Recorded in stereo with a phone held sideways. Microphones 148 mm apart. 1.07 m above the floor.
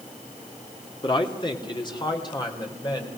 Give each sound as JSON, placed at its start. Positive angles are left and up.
{"t": 1.0, "sound": "a man speaking", "side_deg": 30, "distance_m": 2.5}